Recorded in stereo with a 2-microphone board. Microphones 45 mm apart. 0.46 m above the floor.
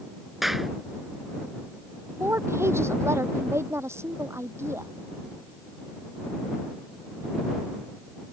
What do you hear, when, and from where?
0.4 s a clap: centre (ahead or behind)
2.2 s a woman speaking: 85° right